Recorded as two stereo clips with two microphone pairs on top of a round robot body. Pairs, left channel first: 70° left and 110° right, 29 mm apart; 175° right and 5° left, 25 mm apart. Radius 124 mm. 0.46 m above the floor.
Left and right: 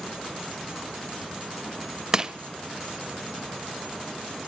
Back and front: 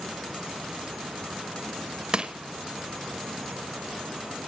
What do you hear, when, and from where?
2.1 s crushing: 45° right, 0.9 m